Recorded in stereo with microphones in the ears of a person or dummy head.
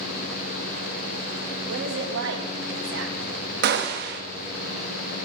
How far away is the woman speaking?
About 1.7 m.